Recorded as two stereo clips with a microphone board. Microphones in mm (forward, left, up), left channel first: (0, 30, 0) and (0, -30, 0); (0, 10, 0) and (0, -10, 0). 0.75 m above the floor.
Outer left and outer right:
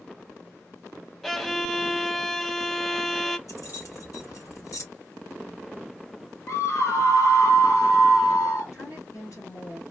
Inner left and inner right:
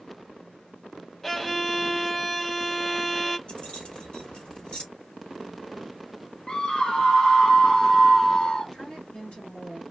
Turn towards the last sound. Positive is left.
turn(degrees=70)  # may be behind; listen again after turning